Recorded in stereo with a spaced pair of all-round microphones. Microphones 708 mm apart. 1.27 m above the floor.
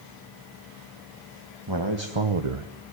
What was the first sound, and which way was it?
A man speaking, 35° right (ahead or behind).